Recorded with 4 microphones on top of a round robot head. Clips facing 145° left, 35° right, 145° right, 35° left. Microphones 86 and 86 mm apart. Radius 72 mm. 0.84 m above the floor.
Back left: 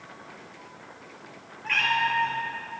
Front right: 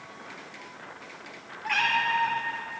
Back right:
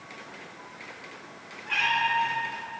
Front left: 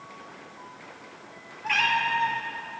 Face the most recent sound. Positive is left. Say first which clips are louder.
# back left 1 dB, front left 1 dB
turn(degrees=40)